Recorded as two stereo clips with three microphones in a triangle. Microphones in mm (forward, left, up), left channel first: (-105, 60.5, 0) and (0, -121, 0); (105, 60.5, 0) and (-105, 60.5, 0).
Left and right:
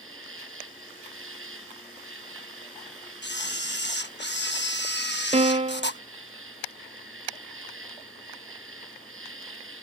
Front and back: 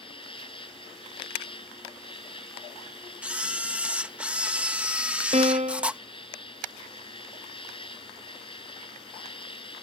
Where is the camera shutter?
95° left.